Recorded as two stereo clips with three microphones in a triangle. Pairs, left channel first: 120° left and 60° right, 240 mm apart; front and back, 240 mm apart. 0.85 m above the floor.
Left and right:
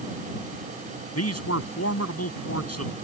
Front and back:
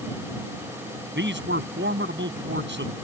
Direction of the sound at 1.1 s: 135° left.